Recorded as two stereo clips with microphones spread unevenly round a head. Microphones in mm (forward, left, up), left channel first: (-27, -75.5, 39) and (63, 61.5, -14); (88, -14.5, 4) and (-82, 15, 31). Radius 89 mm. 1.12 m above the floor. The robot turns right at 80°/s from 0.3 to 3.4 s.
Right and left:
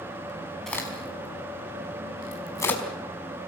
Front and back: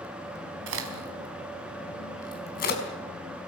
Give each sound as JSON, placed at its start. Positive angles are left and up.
{"t": 0.7, "sound": "a crack", "azimuth_deg": 150, "distance_m": 4.5}